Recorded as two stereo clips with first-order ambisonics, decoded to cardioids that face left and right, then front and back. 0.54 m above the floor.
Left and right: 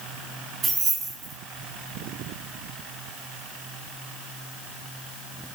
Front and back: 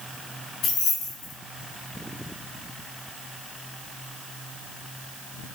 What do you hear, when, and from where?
0.6 s keys jangling: 45° right, 2.0 m